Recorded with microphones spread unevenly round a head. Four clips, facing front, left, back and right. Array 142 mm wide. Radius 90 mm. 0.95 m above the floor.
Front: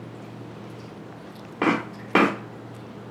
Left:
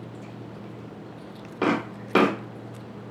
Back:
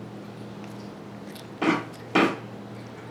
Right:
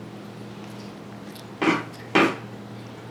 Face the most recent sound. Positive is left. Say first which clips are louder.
# right 1 dB, front 1 dB
turn(degrees=-5)